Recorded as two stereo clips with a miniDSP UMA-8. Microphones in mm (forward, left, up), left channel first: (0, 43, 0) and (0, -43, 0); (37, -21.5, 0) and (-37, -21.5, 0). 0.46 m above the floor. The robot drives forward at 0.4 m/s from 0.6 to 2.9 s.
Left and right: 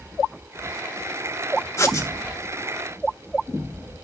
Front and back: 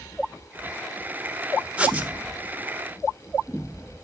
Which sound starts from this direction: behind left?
Writing, at 1.8 s.